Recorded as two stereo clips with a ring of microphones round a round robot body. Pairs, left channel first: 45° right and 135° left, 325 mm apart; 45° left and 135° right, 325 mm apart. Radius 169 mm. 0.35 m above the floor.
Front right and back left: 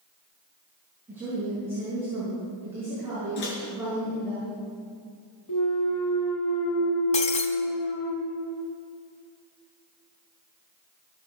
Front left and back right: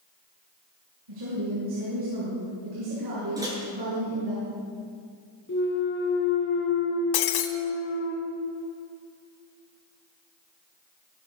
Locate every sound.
1.1 s a woman speaking: 145° right, 5 m
3.4 s a microwave: 55° right, 4.5 m
5.5 s a clunk: 15° right, 1.3 m
7.1 s breaking glass: 25° left, 1.0 m